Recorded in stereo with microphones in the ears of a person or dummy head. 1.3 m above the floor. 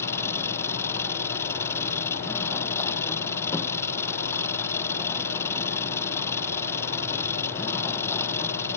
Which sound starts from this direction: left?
An engine running, at 0.0 s.